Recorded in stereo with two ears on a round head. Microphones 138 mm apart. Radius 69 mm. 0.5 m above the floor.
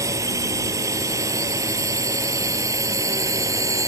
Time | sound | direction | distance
0.0 | a drone | 20° right (ahead or behind) | ?